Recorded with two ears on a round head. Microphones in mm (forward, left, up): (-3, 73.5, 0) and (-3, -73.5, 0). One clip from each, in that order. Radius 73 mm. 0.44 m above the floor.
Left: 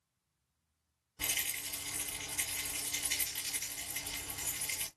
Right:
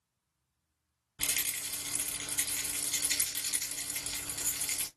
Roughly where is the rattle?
Right.